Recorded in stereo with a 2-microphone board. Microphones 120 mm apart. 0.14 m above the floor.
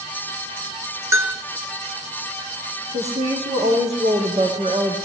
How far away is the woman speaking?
About 8.5 m.